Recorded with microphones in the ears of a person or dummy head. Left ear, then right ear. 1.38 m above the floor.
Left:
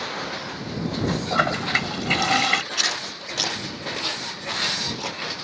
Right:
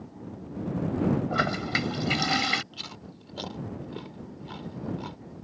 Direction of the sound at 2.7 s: 65° left (ahead or behind).